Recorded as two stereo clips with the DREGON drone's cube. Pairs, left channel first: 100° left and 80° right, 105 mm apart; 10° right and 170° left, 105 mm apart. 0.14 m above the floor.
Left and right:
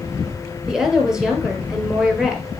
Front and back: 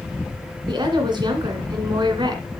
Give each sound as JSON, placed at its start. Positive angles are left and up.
{"t": 0.7, "sound": "a woman speaking", "azimuth_deg": -165, "distance_m": 2.0}